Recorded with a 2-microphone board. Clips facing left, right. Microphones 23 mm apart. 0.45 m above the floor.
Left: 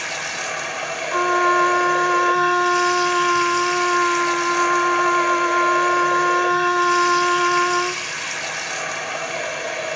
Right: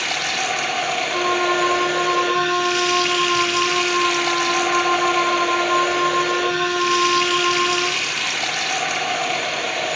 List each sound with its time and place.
0.0 s running water: 80° right, 3 m
1.1 s a trumpet: 15° left (ahead or behind), 3 m